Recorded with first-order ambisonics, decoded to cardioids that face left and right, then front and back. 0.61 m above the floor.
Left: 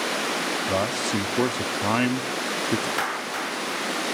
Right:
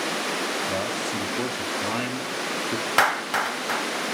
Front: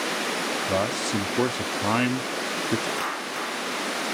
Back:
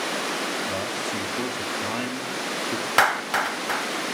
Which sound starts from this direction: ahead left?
A man speaking, at 0.7 s.